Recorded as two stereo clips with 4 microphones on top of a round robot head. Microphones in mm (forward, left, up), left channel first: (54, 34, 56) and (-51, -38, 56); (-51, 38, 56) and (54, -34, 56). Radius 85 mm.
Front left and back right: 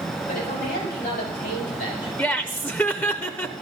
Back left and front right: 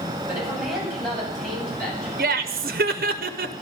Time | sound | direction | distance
0.3 | a man speaking | 50° left | 9 m
2.2 | laughter | 40° right | 0.7 m